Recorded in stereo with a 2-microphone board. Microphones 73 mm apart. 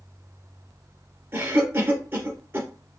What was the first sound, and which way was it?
A cough, 30° right (ahead or behind).